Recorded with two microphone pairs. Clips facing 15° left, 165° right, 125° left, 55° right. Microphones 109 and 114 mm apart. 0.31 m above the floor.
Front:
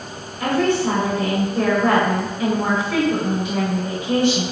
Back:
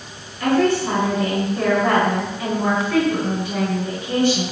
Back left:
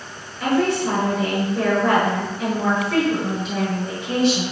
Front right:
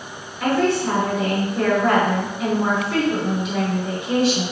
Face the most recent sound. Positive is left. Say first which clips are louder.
# back 1 dB, even
turn(degrees=25)